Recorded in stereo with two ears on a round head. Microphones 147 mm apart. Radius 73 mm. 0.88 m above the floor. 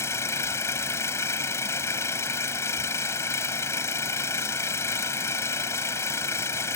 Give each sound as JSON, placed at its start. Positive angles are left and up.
{"t": 0.0, "sound": "an engine running", "side_deg": 15}